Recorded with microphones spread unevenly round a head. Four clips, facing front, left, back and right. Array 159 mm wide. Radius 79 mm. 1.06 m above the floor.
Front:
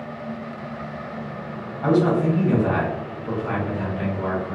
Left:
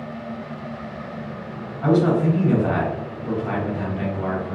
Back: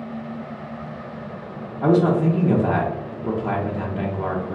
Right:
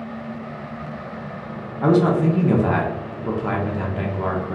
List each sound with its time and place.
1.8 s a man speaking: 145° right, 0.7 m